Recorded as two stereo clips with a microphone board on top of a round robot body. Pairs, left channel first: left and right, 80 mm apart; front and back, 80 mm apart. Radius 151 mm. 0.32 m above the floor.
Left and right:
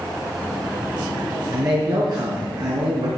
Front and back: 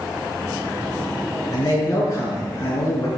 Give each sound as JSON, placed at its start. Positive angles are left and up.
{"t": 1.5, "sound": "a man speaking", "azimuth_deg": -50, "distance_m": 5.0}